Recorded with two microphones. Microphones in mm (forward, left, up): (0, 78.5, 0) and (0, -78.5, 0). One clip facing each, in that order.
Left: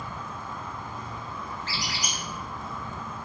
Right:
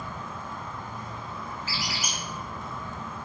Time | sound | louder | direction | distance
0.0 | an insect | even | 45° right (ahead or behind) | 1.3 m
1.7 | a squeak | even | 5° right (ahead or behind) | 0.9 m